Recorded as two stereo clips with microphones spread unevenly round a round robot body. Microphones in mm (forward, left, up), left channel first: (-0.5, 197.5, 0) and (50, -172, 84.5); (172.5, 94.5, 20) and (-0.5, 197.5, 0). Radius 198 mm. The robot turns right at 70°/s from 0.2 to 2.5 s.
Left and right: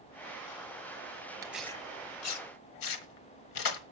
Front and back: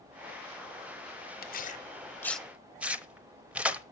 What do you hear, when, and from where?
1.4 s tearing paper: 15° right, 1.0 m; by 3.8 s 60° left, 1.0 m